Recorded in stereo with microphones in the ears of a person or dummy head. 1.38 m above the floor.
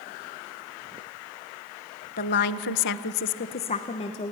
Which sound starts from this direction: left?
A woman speaking, at 2.2 s.